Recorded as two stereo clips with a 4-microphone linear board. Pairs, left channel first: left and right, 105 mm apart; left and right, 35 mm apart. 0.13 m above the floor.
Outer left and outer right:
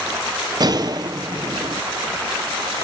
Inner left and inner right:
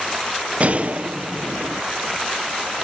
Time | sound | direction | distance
0.6 | a gunshot | 45° right (ahead or behind) | 0.6 m